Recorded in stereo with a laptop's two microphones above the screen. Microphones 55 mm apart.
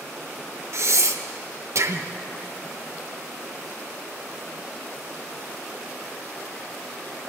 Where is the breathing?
60° right (ahead or behind), 1.1 m.